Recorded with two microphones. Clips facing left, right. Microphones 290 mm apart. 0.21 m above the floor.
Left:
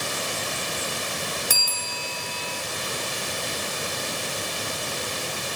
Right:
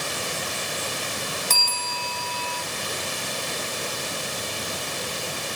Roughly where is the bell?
Centre.